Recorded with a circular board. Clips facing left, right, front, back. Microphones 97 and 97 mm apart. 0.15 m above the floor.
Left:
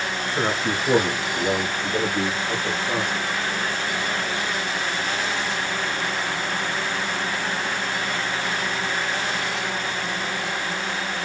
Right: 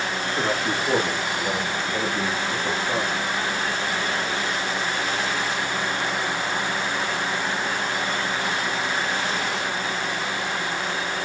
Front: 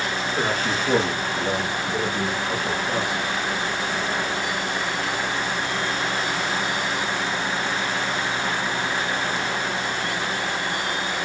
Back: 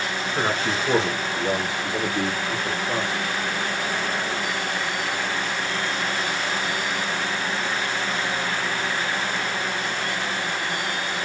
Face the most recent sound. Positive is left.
turn(degrees=75)